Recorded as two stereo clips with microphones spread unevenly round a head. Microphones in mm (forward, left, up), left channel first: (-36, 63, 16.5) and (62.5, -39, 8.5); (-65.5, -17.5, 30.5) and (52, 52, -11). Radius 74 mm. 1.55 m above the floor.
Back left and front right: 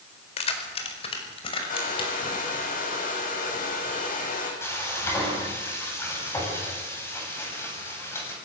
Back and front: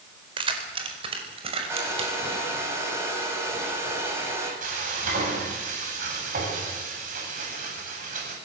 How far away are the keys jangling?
About 4 m.